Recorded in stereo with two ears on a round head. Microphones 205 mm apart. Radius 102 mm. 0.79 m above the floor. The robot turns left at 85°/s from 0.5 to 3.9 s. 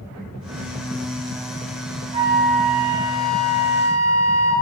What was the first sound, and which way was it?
A flute, 150° right.